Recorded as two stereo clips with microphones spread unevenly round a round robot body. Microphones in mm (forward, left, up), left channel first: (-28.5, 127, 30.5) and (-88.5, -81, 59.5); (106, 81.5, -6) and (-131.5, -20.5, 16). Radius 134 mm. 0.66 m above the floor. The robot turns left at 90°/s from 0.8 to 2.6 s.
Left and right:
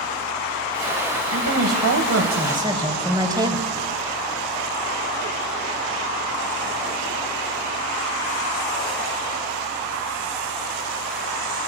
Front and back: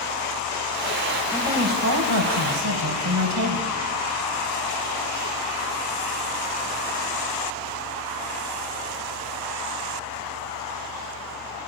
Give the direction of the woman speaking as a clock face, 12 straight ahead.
2 o'clock.